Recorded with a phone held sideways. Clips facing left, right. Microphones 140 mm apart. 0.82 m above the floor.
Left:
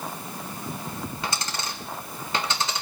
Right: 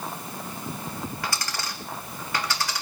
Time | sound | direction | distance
1.2 | a dropped coin | 20° left (ahead or behind) | 1.6 m